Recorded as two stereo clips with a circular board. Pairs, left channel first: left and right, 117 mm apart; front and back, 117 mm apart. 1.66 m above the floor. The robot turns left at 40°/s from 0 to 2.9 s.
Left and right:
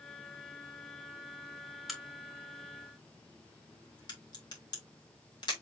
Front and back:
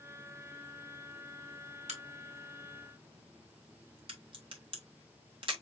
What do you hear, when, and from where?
1.9 s a crack: straight behind, 2 m; by 5.5 s 140° left, 2 m